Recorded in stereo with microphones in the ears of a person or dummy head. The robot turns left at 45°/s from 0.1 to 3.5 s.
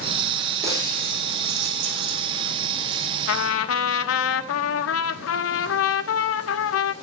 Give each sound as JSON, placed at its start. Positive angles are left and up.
{"t": 0.6, "sound": "breaking glass", "side_deg": -15, "distance_m": 7.5}
{"t": 3.3, "sound": "a trumpet", "side_deg": 80, "distance_m": 1.3}